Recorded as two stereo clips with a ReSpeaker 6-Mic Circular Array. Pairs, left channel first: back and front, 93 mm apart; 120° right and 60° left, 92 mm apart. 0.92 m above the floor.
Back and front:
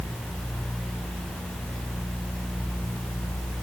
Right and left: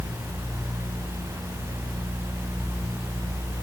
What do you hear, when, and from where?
Only background noise.